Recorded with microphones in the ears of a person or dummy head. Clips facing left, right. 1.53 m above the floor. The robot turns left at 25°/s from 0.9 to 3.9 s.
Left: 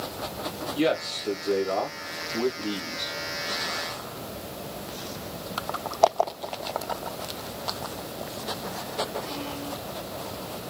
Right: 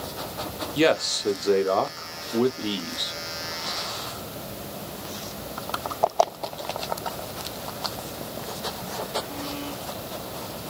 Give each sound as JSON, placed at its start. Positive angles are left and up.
{"t": 0.8, "sound": "a man speaking", "azimuth_deg": -85, "distance_m": 0.7}